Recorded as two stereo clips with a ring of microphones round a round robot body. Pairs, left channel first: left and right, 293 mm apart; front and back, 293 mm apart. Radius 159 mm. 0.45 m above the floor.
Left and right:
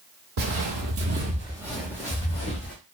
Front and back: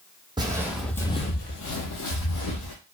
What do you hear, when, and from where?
0.4 s footsteps: 105° right, 0.7 m; by 2.7 s 25° left, 1.0 m